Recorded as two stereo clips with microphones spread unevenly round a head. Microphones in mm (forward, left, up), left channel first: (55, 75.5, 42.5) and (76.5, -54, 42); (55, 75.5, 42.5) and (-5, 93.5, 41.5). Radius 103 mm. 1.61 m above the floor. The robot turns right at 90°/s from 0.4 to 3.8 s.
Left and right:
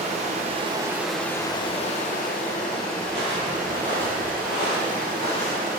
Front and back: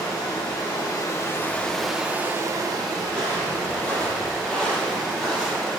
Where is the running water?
55° right, 0.8 m; by 5.8 s 110° right, 0.8 m.